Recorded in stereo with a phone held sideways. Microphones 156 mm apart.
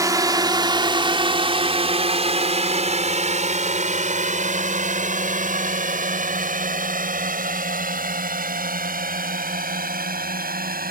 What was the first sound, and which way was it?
A drone, 20° right (ahead or behind).